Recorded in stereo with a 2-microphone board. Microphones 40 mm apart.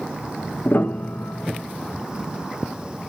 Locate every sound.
0.7 s a piano: 55° left (ahead or behind), 0.5 m